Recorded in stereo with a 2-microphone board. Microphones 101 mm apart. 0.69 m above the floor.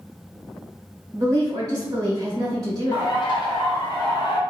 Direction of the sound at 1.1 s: 40° right (ahead or behind).